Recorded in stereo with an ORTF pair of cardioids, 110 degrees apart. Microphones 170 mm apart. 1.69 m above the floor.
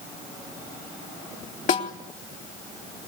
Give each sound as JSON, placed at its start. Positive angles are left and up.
{"t": 1.7, "sound": "a snare drum", "azimuth_deg": 45, "distance_m": 3.5}